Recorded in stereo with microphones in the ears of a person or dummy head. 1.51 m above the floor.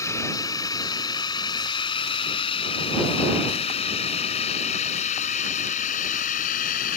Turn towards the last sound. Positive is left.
turn(degrees=45)  # may be behind; listen again after turning